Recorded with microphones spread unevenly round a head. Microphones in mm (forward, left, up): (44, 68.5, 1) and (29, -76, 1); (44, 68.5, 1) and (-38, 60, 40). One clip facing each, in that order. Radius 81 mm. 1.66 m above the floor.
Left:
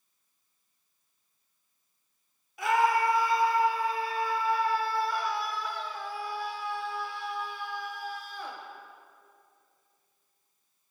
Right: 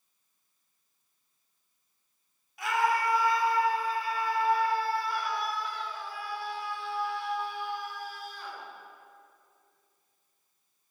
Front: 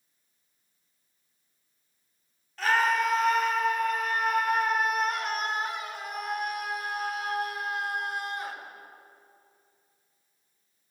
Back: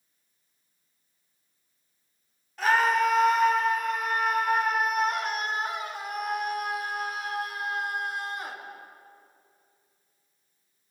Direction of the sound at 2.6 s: 110° left.